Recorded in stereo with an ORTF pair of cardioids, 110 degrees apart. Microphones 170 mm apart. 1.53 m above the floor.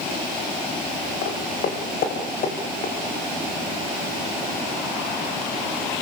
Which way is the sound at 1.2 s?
65° left.